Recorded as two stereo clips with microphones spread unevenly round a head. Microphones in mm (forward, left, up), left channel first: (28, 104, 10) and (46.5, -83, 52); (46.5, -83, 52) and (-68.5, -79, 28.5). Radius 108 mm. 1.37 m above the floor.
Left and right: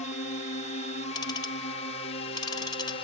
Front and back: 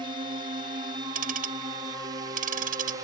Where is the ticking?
170° left.